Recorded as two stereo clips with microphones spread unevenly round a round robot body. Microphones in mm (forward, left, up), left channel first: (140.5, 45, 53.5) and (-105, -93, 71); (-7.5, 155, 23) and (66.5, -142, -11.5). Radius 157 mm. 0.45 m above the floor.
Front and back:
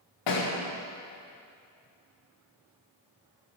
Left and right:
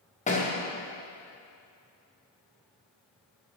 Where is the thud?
35° left, 5 m.